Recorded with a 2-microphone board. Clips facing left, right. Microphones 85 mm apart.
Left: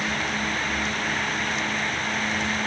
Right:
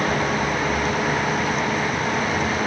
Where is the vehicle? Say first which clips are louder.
Right 6 dB; 50° right (ahead or behind); by 2.7 s 45° right (ahead or behind).